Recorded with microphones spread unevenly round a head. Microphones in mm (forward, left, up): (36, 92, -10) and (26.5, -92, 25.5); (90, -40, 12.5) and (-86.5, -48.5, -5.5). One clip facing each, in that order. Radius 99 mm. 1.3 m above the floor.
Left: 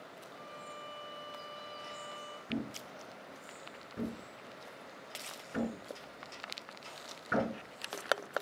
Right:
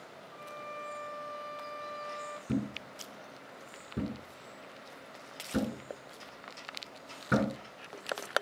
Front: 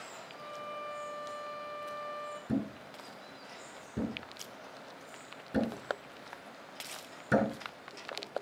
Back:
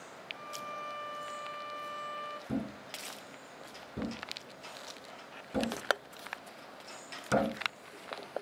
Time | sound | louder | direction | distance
0.3 | a violin | right 6 dB, front 2 dB | 145° right | 5.5 m
2.5 | a thud | right 5 dB, front 3 dB | 70° right | 2.5 m